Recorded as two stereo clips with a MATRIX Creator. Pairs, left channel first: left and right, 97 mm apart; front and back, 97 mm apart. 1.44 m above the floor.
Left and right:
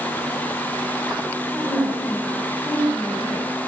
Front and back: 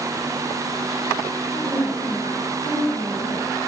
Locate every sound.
1.5 s a woman speaking: 5° left, 9.5 m